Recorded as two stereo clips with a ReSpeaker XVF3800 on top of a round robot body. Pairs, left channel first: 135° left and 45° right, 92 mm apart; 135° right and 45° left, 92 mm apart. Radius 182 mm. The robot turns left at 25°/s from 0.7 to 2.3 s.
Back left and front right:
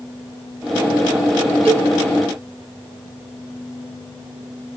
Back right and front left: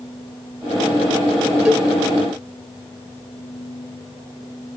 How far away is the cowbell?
About 2 m.